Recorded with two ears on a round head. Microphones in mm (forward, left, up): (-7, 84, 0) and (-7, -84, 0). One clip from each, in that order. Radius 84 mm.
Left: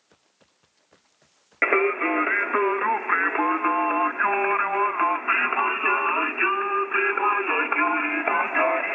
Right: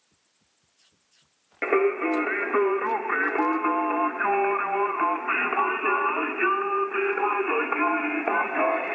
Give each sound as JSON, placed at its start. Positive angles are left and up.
{"t": 1.6, "sound": "singing", "side_deg": 45, "distance_m": 0.6}